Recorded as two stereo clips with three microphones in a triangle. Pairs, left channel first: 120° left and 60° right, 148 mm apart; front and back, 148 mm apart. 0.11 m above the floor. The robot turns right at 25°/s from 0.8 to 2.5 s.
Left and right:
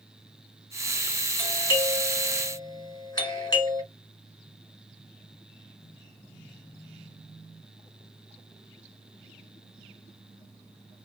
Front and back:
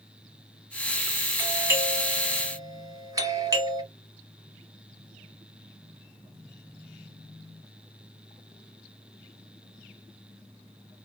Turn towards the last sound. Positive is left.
turn(degrees=145)